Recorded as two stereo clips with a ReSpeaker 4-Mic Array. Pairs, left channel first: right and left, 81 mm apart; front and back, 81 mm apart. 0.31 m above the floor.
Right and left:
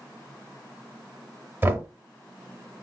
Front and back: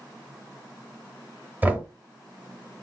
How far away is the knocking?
About 0.6 m.